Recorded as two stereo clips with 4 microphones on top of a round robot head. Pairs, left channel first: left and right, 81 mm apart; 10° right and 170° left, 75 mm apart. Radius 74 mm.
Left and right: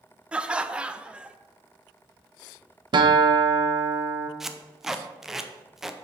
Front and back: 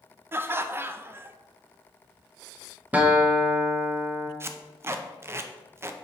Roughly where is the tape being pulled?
Behind.